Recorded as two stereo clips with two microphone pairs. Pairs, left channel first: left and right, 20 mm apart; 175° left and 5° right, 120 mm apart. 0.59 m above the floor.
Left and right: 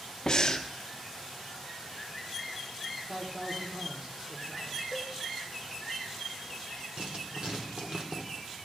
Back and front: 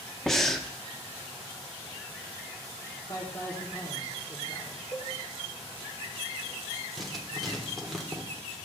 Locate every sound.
0.3 s breathing: 90° left, 0.6 m
3.1 s a man speaking: 130° right, 1.5 m
4.9 s a cowbell: 120° right, 5.5 m
7.0 s writing: 95° right, 1.6 m